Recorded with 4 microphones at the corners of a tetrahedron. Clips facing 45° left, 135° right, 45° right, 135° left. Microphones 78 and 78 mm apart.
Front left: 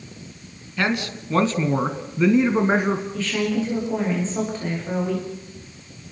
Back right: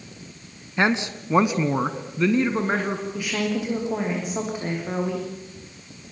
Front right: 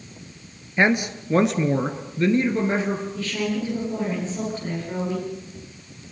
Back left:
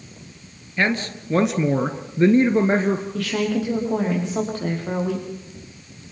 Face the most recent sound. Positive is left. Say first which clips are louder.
# front left 2 dB, back left 3 dB
turn(degrees=150)